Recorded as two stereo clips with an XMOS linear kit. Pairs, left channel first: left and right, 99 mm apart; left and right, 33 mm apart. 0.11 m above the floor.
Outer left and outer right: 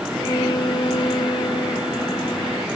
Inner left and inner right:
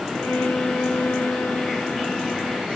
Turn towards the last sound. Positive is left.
turn(degrees=55)  # may be behind; listen again after turning